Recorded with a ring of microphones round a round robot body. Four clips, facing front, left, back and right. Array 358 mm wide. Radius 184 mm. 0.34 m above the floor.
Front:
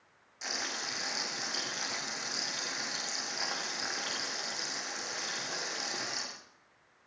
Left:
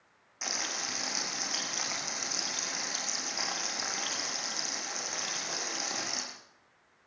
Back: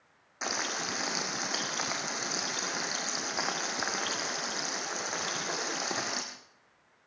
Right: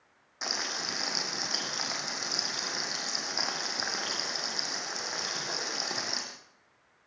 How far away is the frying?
About 5 m.